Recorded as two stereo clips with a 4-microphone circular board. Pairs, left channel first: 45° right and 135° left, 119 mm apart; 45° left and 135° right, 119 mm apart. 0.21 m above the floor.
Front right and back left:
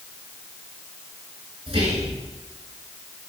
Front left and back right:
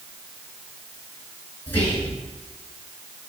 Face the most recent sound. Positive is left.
turn(degrees=115)